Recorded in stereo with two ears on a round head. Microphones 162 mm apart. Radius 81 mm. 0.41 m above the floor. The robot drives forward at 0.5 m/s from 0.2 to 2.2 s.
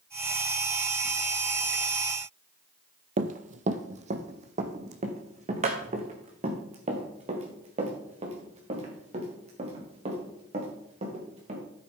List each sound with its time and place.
3.2 s running footsteps: 45° right (ahead or behind), 0.8 m; by 11.6 s 35° right (ahead or behind), 5 m